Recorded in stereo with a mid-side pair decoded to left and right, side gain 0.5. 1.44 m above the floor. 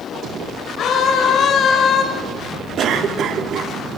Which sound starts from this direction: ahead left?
A scream, at 0.8 s.